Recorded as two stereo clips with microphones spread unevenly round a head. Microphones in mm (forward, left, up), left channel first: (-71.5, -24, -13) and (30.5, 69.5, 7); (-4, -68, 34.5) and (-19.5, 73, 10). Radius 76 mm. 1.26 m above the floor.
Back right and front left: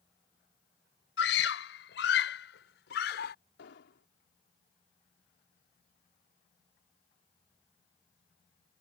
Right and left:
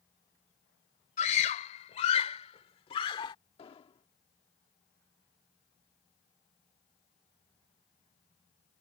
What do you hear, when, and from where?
1.2 s a scream: 125° right; by 3.4 s 145° right
3.6 s an explosion: 140° right